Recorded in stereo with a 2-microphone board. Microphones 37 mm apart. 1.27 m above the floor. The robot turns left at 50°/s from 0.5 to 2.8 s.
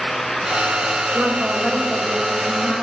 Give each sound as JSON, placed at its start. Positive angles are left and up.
{"t": 1.1, "sound": "a woman speaking", "azimuth_deg": -135, "distance_m": 7.0}